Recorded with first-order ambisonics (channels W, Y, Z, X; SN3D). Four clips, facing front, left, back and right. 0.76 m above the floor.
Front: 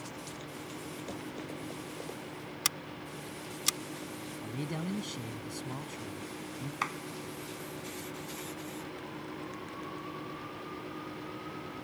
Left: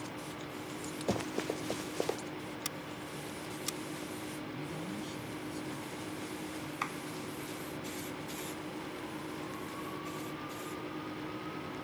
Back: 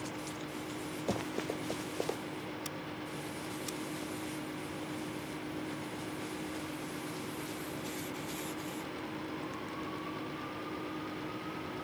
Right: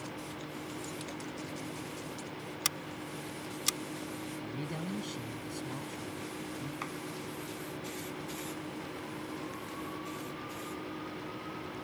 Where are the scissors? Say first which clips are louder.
Right 4 dB, front 4 dB; 35° right.